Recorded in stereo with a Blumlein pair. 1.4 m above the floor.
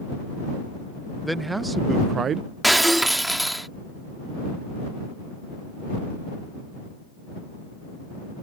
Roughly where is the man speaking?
Ahead.